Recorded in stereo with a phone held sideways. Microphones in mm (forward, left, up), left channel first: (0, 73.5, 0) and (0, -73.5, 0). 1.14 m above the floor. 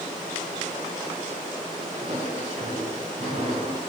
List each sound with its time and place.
1.9 s footsteps: 50° right (ahead or behind), 7 m; by 3.8 s 55° right (ahead or behind), 6 m